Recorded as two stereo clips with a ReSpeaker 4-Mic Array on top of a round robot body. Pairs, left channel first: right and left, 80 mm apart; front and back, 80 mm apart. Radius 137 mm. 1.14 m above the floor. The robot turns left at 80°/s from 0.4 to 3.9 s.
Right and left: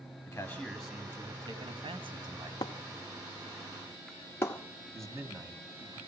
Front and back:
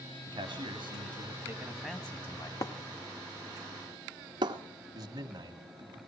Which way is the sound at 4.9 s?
145° left.